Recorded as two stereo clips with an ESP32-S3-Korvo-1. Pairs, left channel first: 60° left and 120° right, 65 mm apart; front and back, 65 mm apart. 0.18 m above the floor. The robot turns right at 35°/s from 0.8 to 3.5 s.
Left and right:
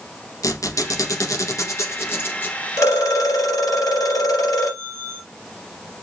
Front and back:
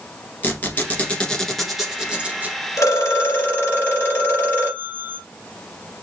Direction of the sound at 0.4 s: 60° left.